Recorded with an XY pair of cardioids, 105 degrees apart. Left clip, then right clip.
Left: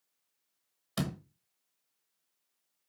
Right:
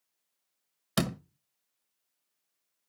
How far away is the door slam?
About 1.0 m.